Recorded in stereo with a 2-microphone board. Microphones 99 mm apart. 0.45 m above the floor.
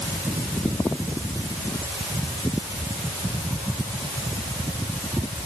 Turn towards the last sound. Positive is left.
No sound to turn to.